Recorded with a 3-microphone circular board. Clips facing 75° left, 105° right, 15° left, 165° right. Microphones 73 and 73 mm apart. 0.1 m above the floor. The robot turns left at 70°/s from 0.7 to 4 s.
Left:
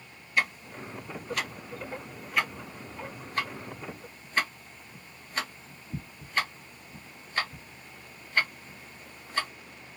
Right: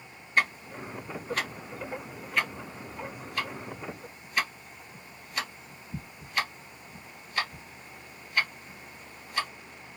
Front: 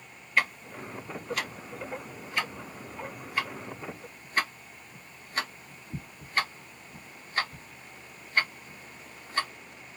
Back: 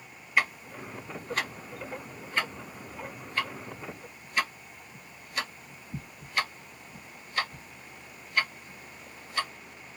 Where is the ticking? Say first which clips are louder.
Right 2 dB, even; 85° right, 1.3 m; by 9.5 s 40° left, 1.3 m.